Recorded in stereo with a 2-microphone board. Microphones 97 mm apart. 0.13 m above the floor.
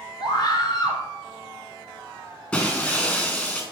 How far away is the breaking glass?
About 4 m.